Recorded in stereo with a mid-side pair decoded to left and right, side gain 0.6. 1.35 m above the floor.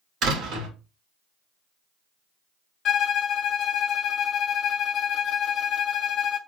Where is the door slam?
60° right, 1.7 m.